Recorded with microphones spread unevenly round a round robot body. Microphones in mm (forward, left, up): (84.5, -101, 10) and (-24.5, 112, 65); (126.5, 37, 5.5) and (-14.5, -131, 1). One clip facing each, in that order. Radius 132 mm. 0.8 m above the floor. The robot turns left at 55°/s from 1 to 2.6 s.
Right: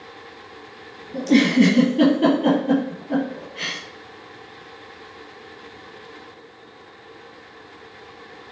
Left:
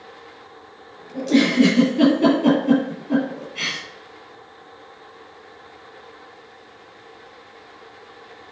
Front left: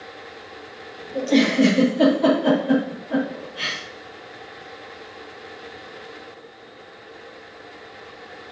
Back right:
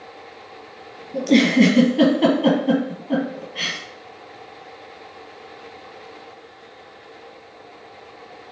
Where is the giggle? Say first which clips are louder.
Right 1 dB, back right 3 dB; 90° right, 3.5 m; by 3.8 s 170° right, 3.5 m.